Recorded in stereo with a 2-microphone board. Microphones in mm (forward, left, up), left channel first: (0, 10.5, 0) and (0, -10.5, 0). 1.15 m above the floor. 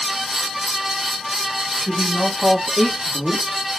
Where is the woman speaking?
70° right (ahead or behind), 2 m; by 3.7 s 30° right (ahead or behind), 1.3 m.